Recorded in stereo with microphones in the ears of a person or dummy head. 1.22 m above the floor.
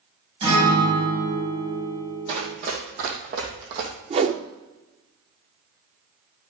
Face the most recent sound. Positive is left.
turn(degrees=-30)  # may be behind; listen again after turning